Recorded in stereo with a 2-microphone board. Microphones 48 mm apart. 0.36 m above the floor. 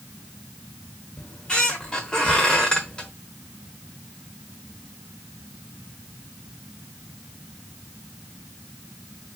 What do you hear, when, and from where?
1.2 s a squeak: 20° left (ahead or behind), 0.9 m